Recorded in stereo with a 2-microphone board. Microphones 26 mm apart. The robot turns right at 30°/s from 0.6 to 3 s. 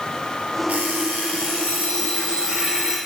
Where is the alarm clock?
95° right, 5 m; by 3.0 s 25° right, 5 m.